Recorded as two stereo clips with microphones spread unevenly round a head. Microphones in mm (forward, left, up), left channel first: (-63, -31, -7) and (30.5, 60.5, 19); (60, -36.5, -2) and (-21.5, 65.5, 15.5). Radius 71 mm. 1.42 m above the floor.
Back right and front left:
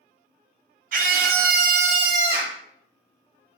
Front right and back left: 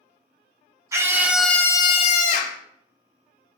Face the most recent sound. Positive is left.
turn(degrees=-40)